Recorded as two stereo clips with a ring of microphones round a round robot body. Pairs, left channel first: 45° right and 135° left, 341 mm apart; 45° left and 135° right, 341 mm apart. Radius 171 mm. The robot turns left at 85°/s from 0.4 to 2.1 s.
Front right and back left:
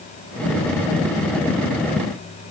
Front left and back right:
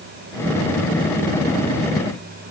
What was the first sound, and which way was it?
Only background noise.